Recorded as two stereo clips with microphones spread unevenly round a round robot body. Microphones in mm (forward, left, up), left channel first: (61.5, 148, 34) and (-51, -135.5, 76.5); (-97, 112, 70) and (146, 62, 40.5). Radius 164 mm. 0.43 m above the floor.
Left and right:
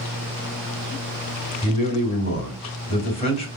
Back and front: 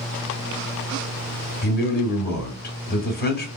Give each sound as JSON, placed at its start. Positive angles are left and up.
{"t": 1.6, "sound": "a man speaking", "azimuth_deg": 125, "distance_m": 1.5}